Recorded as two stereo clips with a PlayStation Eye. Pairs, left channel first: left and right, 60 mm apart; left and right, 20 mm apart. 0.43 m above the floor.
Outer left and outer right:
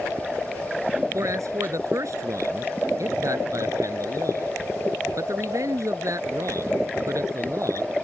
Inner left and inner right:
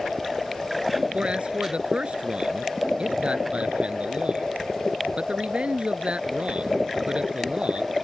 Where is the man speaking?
60° right (ahead or behind).